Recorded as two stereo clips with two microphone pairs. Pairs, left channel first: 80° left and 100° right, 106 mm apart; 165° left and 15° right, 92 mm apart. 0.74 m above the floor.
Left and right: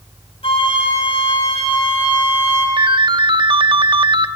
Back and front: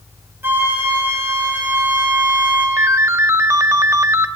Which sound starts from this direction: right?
A ringtone, at 2.8 s.